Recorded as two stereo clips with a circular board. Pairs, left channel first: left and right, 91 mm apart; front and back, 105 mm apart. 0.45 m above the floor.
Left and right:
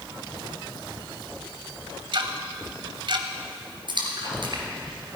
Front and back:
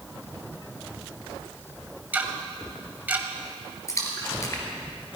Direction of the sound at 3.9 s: 60° right.